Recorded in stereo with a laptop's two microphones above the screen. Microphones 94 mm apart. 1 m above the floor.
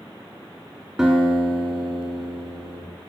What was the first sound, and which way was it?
A guitar, 10° right (ahead or behind).